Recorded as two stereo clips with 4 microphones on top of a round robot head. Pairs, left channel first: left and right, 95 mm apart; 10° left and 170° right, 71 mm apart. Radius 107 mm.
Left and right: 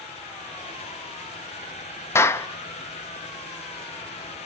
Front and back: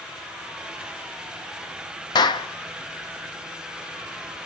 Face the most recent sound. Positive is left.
turn(degrees=25)